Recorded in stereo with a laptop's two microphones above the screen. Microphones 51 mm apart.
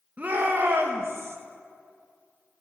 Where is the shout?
30° right (ahead or behind), 1.3 m; by 1.4 s 60° right (ahead or behind), 1.3 m.